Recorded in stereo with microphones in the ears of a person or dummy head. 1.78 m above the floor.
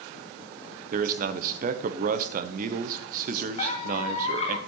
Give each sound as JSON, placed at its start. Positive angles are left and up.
{"t": 0.9, "sound": "a man speaking", "side_deg": -45, "distance_m": 1.1}
{"t": 3.6, "sound": "a squeak", "side_deg": 35, "distance_m": 1.9}